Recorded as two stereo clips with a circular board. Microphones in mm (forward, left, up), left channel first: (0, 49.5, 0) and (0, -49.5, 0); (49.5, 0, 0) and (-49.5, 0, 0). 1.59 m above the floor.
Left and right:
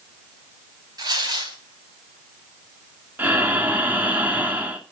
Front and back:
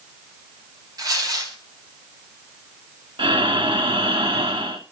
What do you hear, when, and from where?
1.0 s tearing paper: 135° right, 4 m
3.2 s breathing: 160° right, 2 m